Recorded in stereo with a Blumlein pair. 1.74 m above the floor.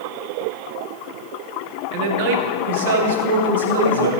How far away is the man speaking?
About 1.3 m.